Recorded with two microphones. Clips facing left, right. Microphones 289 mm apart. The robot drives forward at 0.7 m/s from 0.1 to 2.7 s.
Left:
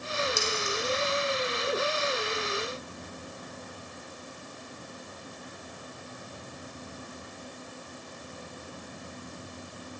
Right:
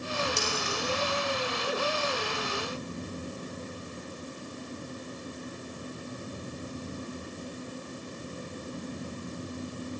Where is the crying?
I don't hear crying.